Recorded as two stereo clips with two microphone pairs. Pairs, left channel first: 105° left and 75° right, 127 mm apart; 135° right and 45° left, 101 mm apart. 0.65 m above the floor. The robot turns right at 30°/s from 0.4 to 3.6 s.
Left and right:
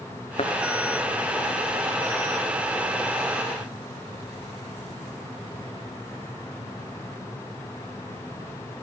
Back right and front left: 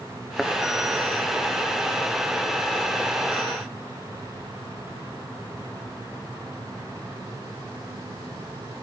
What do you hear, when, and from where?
0.4 s a thud: 135° left, 1.4 m; by 0.5 s 140° left, 1.4 m